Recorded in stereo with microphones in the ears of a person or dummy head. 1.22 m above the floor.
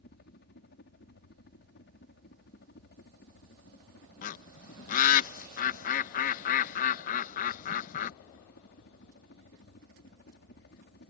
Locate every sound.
0.0 s a helicopter: 50° left (ahead or behind)
4.2 s a bird: 50° left (ahead or behind)